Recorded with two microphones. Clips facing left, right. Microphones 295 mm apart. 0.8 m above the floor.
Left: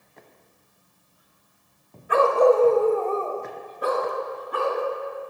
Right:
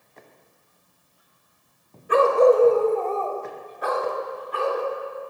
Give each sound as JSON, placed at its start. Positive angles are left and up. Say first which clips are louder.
{"t": 2.1, "sound": "a dog barking", "louder": "right 2 dB", "side_deg": -40, "distance_m": 1.5}